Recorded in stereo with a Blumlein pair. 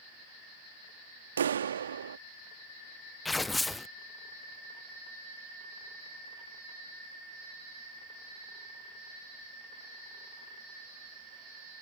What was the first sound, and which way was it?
A clap, 70° right.